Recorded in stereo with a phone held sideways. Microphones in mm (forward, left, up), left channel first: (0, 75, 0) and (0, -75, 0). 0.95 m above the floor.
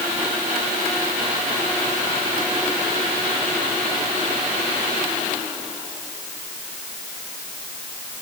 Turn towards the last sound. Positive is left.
No sound to turn to.